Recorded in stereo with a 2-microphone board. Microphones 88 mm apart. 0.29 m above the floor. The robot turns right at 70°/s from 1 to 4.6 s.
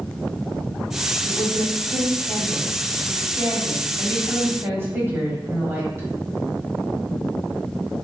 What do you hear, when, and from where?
1.2 s a woman speaking: 80° left, 1.3 m; by 6.1 s 45° right, 1.3 m